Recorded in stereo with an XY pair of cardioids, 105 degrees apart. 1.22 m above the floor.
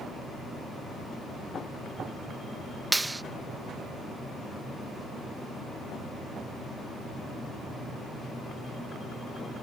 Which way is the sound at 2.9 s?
15° right.